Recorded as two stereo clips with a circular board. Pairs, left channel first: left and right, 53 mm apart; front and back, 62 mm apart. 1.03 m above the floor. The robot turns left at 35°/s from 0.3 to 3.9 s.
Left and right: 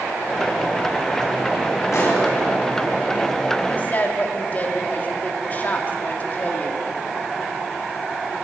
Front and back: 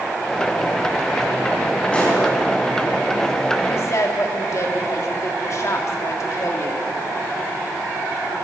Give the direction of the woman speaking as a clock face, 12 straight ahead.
11 o'clock.